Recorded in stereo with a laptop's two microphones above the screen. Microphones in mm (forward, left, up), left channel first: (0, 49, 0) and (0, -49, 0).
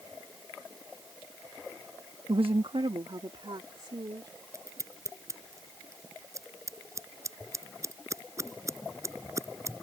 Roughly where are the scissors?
Right.